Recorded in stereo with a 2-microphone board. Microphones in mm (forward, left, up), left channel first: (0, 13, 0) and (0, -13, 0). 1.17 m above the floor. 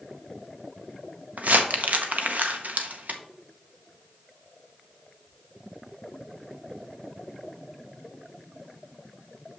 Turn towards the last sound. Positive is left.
turn(degrees=-70)  # may be behind; listen again after turning